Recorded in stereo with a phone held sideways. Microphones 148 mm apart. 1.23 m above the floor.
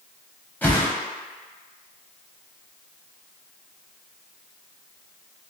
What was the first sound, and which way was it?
A whoosh, 10° left (ahead or behind).